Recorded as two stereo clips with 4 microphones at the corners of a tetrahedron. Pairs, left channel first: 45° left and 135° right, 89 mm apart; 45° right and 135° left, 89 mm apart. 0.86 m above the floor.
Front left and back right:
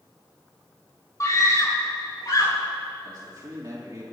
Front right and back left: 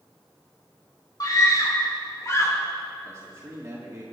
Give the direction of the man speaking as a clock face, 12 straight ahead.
6 o'clock.